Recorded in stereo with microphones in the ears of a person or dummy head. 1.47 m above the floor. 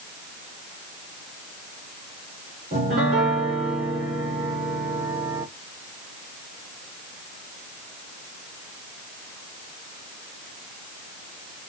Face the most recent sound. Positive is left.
turn(degrees=-40)  # may be behind; listen again after turning